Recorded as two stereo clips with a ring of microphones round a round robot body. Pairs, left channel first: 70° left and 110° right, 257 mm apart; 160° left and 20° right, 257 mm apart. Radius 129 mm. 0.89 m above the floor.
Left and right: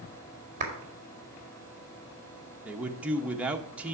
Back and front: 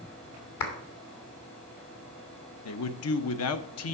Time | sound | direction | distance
0.6 | a clap | 175° right | 1.9 m
2.6 | a man speaking | 165° left | 0.8 m